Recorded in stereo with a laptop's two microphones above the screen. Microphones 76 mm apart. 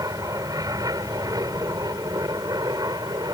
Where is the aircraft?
50° right (ahead or behind); by 3.3 s 60° right (ahead or behind).